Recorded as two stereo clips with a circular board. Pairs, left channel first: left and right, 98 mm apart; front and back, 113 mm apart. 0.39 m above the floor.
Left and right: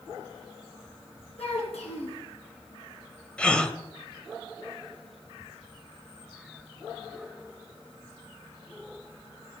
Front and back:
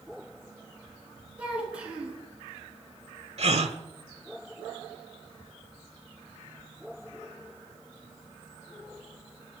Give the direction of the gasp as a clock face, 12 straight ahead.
6 o'clock.